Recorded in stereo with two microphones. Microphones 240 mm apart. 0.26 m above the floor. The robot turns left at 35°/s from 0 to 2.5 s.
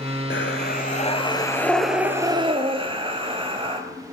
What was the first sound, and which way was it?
Breathing, 55° left.